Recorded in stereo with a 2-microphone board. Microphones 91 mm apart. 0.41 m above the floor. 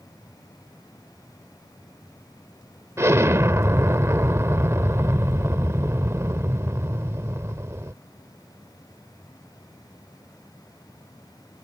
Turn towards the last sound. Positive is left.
turn(degrees=-30)  # may be behind; listen again after turning